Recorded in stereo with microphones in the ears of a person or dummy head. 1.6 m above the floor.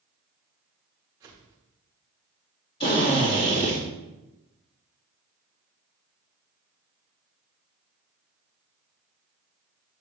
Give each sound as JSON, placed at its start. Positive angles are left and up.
{"t": 1.2, "sound": "a whoosh", "side_deg": -20, "distance_m": 2.0}
{"t": 2.8, "sound": "a drill", "side_deg": 25, "distance_m": 2.5}